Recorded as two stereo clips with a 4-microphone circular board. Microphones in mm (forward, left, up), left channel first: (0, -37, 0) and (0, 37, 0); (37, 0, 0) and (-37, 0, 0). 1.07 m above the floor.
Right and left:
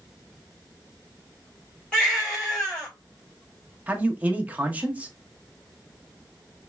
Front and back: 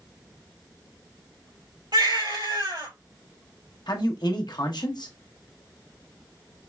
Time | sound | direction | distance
1.9 | a baby crying | 165° right | 3 m
3.9 | a man speaking | 20° left | 0.8 m